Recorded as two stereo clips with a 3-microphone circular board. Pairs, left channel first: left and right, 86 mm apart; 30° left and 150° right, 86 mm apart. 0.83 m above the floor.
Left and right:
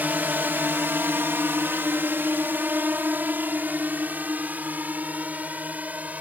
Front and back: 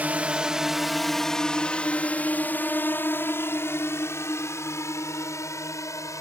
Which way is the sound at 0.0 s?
115° right.